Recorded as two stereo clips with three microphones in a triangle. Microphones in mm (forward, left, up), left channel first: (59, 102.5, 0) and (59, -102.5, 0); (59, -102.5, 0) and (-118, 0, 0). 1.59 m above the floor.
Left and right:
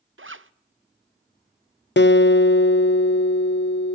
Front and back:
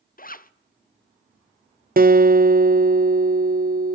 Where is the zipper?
75° right, 0.7 m.